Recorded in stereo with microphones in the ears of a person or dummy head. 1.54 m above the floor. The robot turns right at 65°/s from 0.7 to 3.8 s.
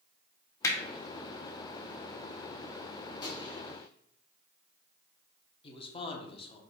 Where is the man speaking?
35° left (ahead or behind), 1.0 m.